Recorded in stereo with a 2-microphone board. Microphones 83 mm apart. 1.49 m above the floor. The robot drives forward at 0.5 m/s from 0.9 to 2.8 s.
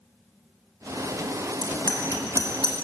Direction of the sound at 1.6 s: 65° left (ahead or behind).